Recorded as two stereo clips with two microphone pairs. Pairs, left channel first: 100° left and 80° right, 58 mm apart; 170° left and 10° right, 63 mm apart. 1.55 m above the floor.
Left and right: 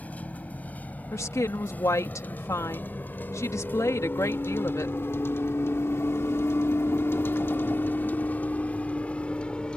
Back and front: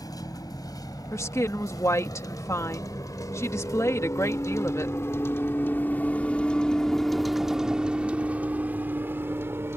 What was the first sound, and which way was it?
A vehicle, 160° left.